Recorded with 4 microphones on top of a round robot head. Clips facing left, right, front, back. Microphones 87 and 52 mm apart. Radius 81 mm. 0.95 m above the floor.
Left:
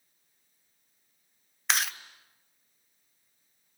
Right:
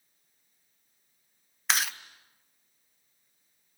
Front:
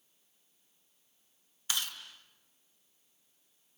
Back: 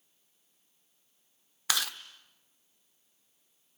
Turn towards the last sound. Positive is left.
turn(degrees=180)